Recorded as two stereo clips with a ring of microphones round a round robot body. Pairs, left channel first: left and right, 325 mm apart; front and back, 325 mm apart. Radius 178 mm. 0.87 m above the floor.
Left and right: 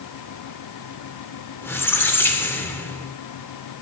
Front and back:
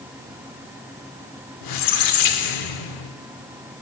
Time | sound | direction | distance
1.6 | a squeak | 5° left | 0.7 m